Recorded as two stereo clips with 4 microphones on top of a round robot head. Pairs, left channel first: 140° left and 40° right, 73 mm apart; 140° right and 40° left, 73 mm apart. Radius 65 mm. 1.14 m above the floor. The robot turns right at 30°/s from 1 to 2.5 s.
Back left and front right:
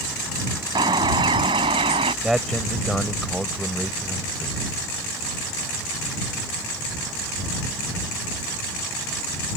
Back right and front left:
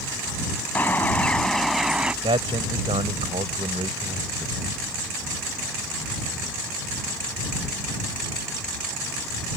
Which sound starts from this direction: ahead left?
A man speaking, at 2.2 s.